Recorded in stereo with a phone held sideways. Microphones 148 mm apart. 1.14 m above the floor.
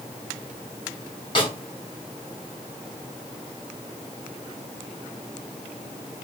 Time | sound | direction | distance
1.4 | a snare drum | 35° left (ahead or behind) | 1.1 m